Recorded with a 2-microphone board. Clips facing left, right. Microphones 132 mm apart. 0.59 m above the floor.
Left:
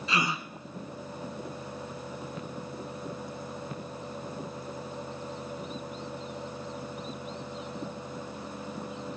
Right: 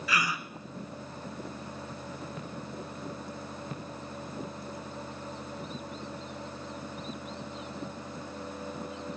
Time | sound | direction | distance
0.1 | a gasp | 25° left (ahead or behind) | 1.2 m